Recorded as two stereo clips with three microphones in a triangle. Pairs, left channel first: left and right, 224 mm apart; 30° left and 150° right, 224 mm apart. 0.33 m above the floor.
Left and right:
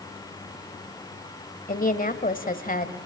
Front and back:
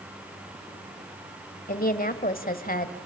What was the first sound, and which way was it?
A woman speaking, 60° left.